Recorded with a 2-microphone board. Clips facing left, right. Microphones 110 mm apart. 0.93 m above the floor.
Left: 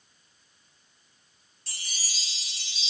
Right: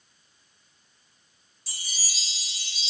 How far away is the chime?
About 0.9 m.